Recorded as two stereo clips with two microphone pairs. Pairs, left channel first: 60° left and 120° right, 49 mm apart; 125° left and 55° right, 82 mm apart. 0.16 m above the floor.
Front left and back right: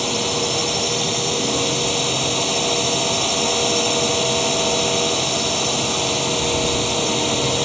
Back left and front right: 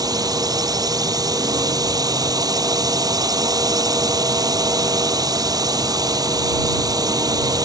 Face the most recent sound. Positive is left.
turn(degrees=-30)